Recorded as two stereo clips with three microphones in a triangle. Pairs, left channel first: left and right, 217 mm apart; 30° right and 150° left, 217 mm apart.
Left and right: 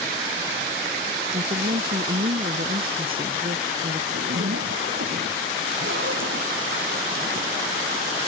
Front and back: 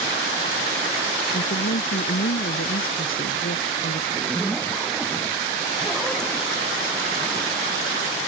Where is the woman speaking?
45° right.